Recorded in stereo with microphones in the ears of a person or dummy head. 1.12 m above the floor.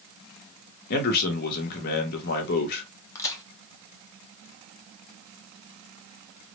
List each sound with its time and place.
0.9 s a man speaking: 55° left (ahead or behind), 1.2 m
3.1 s a crack: 10° left (ahead or behind), 1.0 m